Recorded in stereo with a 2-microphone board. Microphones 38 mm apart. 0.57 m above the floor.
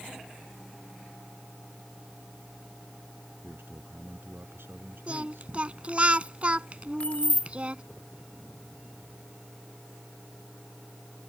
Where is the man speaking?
85° right.